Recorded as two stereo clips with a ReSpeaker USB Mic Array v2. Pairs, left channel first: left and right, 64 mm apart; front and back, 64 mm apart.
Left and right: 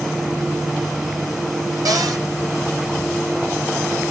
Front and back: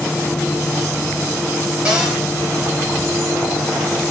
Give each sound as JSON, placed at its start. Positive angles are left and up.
{"t": 1.9, "sound": "a cupboard door", "azimuth_deg": -105, "distance_m": 7.5}